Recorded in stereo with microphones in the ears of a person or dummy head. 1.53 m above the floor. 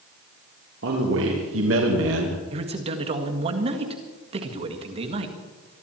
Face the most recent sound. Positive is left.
turn(degrees=-35)  # may be behind; listen again after turning